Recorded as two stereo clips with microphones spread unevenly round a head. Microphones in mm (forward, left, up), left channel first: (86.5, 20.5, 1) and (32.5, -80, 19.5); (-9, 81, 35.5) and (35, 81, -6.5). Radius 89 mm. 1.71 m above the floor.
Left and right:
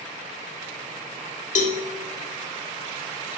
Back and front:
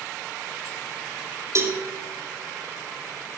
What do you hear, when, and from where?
1.6 s a cowbell: 55° left, 2 m